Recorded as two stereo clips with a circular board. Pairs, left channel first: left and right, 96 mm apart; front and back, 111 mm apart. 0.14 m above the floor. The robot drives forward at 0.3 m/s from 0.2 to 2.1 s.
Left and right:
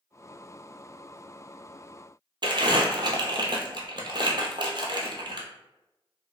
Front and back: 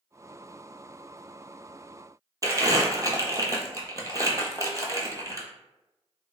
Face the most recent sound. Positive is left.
turn(degrees=-125)